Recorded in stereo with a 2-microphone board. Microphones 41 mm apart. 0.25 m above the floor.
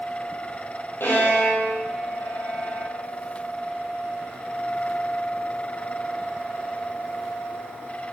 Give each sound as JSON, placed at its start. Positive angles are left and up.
{"t": 1.0, "sound": "a violin", "side_deg": 75, "distance_m": 5.5}